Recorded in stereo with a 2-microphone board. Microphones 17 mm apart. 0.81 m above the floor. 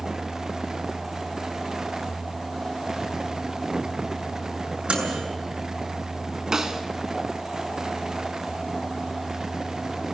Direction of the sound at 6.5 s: 30° right (ahead or behind).